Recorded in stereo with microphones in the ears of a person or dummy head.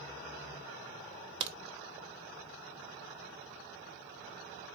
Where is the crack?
30° right (ahead or behind), 0.6 m.